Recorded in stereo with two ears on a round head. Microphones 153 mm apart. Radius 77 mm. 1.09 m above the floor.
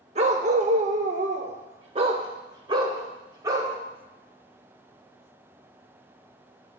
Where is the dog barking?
40° right (ahead or behind), 1.0 m; by 3.8 s 20° right (ahead or behind), 1.8 m.